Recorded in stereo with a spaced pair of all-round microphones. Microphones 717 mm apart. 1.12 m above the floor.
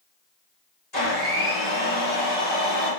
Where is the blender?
70° left (ahead or behind), 2.5 m.